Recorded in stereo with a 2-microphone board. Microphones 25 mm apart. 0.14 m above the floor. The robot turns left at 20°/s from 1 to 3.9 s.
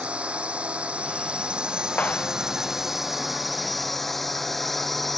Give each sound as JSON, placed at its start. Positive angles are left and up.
{"t": 0.0, "sound": "a drone", "azimuth_deg": -125}
{"t": 2.0, "sound": "a clap", "side_deg": 85}